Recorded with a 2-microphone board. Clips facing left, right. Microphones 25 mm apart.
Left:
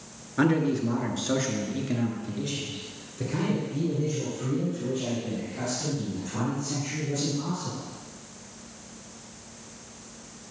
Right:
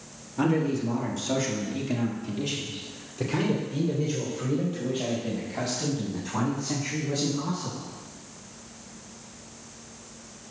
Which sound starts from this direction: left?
A man speaking, at 0.4 s.